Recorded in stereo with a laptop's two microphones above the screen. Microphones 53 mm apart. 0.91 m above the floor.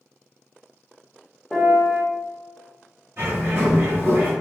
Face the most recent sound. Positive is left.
turn(degrees=-45)  # may be behind; listen again after turning